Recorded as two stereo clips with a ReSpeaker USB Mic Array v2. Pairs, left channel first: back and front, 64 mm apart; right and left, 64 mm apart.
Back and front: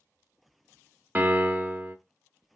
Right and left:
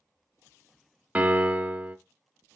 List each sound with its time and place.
1.1 s a piano: 35° left, 0.7 m